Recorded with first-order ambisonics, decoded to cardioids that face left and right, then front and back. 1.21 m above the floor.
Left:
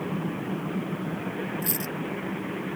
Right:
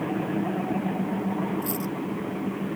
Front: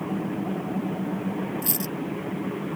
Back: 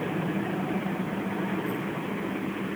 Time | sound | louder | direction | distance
1.6 | a dropped coin | right 1 dB, even | 20° left | ?